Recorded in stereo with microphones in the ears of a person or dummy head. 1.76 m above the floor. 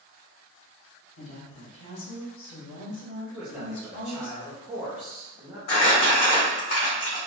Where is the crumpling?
50° left (ahead or behind), 1.8 m.